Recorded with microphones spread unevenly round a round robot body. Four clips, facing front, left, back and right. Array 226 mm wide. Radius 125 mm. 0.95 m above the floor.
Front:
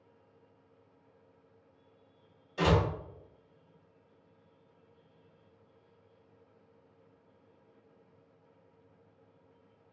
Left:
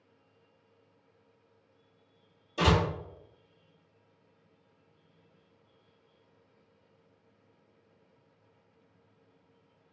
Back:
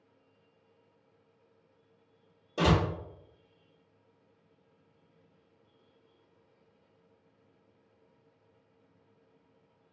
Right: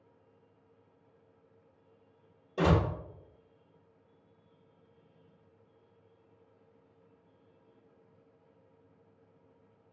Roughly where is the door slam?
Behind right.